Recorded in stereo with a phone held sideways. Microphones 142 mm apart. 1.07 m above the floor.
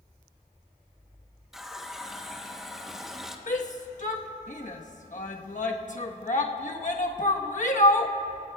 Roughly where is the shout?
Left.